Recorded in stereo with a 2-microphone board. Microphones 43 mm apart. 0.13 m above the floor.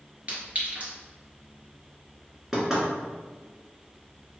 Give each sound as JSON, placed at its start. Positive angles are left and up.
{"t": 0.3, "sound": "a clink", "side_deg": -30, "distance_m": 1.7}
{"t": 2.5, "sound": "knocking", "side_deg": -10, "distance_m": 1.7}